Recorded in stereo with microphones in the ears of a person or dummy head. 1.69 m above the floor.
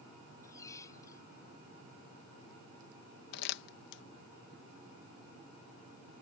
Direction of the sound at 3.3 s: 65° left (ahead or behind).